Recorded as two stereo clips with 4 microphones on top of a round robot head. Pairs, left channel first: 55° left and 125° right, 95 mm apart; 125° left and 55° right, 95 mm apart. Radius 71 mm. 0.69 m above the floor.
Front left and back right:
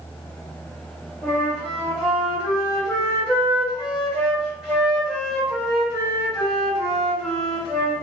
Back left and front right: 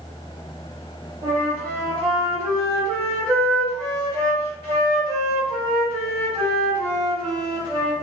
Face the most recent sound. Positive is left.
turn(degrees=-45)